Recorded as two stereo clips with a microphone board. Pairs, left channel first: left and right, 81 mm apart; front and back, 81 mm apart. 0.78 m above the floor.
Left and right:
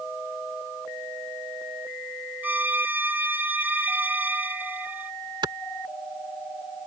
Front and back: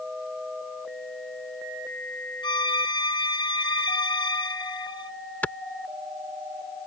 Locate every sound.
2.4 s a violin: 20° right
5.4 s a clap: 70° right